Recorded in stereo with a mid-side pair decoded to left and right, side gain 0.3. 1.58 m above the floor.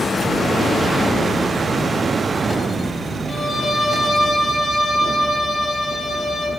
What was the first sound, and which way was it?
A violin, 65° left.